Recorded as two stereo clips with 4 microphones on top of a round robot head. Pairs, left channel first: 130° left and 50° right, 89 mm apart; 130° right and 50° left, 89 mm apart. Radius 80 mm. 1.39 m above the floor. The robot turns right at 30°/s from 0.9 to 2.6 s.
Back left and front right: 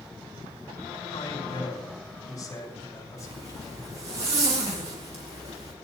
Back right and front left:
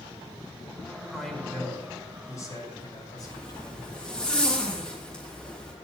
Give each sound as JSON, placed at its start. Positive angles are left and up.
{"t": 1.1, "sound": "a man speaking", "azimuth_deg": 140, "distance_m": 4.5}
{"t": 3.2, "sound": "a zipper", "azimuth_deg": -50, "distance_m": 3.0}